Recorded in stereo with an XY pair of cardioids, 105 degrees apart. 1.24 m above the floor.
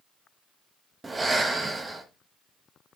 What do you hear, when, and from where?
1.0 s breathing: 25° right, 1.2 m